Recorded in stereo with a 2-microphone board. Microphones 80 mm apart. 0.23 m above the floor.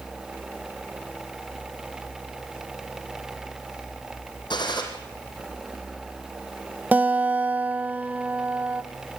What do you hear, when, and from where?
4.5 s a gunshot: 70° left (ahead or behind), 4.5 m
6.9 s a guitar: 20° right (ahead or behind), 1.1 m